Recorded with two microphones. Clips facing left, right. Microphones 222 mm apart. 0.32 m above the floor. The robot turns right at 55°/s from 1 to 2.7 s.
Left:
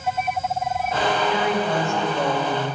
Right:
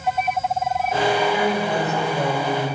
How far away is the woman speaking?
About 1.6 m.